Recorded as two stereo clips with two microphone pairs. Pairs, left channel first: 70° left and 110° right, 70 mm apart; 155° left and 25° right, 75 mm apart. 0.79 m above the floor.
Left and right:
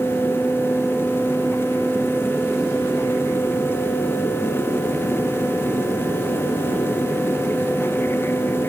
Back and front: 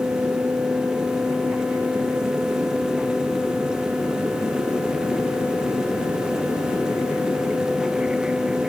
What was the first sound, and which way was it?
Only background noise.